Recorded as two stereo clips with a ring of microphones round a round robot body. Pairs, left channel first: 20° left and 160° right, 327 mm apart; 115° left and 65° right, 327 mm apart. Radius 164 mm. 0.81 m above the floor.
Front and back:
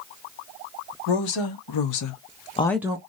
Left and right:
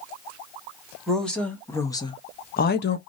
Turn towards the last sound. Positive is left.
turn(degrees=145)